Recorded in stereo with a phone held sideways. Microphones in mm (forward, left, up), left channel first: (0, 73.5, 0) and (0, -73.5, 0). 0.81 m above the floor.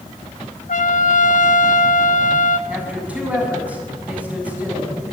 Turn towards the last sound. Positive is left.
turn(degrees=-10)  # may be behind; listen again after turning